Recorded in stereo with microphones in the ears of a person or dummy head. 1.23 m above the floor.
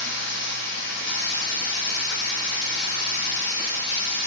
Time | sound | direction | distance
0.0 | running water | 60° left (ahead or behind) | 9 m